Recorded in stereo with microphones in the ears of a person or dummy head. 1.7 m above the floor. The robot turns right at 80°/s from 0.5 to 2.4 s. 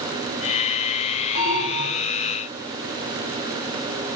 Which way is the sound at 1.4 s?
75° right.